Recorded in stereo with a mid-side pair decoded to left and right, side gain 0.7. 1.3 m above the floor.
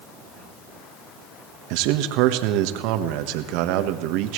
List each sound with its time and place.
1.7 s a man speaking: 70° right, 1.4 m